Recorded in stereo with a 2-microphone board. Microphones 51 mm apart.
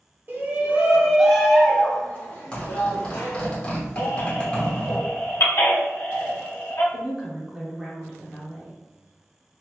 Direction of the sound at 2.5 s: 25° left (ahead or behind).